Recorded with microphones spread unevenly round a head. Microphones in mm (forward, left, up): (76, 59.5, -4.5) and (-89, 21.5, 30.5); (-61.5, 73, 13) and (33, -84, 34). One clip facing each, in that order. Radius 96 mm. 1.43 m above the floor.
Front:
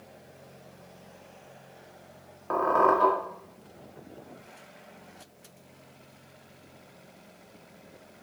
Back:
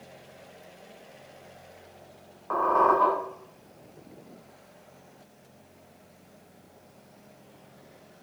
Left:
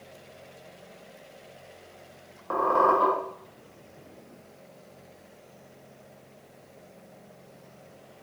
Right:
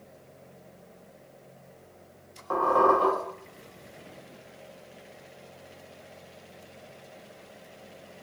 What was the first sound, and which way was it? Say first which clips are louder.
A squeak: even, right 1 dB; 65° left.